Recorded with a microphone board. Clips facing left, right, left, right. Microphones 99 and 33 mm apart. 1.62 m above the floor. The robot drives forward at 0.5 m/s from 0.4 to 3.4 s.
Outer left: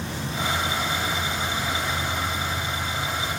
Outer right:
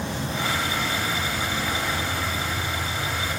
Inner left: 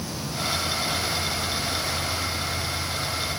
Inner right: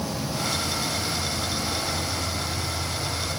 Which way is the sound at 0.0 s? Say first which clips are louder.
Outer right 1 dB, inner right 2 dB; 70° right (ahead or behind).